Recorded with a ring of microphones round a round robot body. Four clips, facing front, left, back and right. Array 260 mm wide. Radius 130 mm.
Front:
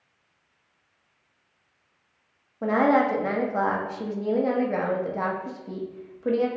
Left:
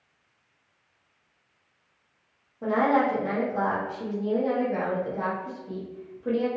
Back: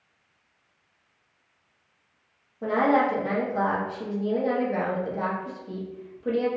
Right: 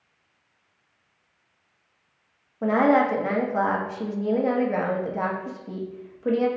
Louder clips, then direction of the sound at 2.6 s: Right 3 dB, front 1 dB; 50° right.